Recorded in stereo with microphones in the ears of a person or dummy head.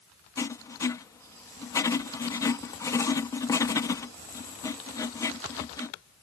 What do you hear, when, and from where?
0.4 s writing: 15° left (ahead or behind)